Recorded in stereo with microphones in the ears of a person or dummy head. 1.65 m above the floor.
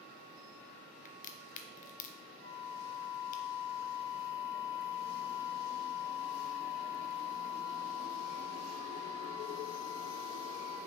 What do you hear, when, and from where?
1.1 s a crack: 40° left (ahead or behind), 0.7 m
2.4 s a flute: 15° left (ahead or behind), 2 m